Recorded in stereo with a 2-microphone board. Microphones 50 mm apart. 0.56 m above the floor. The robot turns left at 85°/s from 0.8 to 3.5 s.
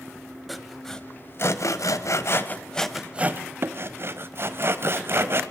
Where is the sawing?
Centre (ahead or behind), 1.0 m; by 5.4 s 50° right (ahead or behind), 1.0 m.